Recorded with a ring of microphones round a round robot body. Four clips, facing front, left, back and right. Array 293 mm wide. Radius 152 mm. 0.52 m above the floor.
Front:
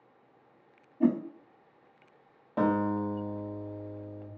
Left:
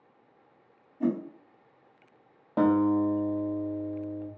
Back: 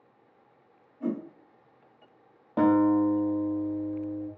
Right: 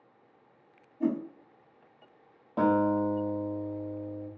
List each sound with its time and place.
1.0 s a whoosh: 10° left, 0.6 m
2.6 s a guitar: 130° left, 1.0 m